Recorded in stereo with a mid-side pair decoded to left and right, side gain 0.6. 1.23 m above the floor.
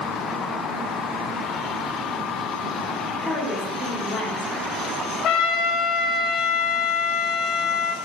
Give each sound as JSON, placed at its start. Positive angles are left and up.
{"t": 3.2, "sound": "a woman speaking", "azimuth_deg": 25, "distance_m": 1.9}
{"t": 5.2, "sound": "a trumpet", "azimuth_deg": 60, "distance_m": 0.6}